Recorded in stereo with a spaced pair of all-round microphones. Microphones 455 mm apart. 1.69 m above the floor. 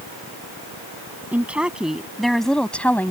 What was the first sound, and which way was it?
A woman speaking, 5° right (ahead or behind).